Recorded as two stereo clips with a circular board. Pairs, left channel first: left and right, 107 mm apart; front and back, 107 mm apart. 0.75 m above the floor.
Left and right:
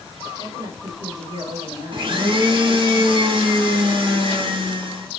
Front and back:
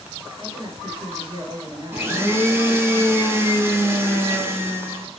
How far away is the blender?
About 1.0 m.